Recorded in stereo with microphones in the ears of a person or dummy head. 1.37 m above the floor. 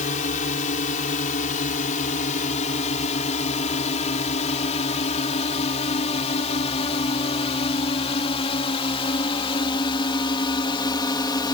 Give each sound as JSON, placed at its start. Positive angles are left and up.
{"t": 0.0, "sound": "a drone", "side_deg": 45}